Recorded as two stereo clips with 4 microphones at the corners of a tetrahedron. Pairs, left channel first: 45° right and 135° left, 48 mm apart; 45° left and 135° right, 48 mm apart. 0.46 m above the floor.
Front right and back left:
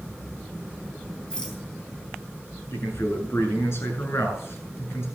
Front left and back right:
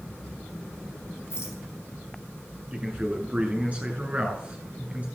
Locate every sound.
1.3 s a rattle: 30° left, 4 m
2.7 s a man speaking: 75° right, 7 m